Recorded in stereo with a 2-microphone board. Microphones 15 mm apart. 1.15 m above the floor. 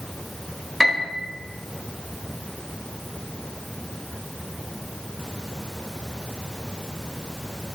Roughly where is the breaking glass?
I don't hear breaking glass.